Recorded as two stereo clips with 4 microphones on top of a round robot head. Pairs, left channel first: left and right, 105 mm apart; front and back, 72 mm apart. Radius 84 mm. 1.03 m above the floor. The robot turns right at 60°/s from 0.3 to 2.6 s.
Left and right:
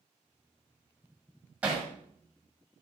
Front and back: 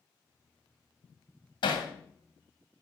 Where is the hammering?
15° right, 2 m; by 1.9 s 5° left, 2 m.